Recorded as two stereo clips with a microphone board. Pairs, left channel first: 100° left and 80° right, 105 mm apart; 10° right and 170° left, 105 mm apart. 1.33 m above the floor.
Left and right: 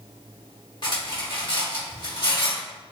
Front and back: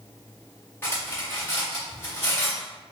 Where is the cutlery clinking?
60° left, 1.6 m.